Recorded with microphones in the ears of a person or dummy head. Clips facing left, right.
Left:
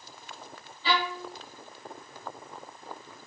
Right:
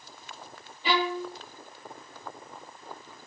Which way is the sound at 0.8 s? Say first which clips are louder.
Right 3 dB; 20° right (ahead or behind).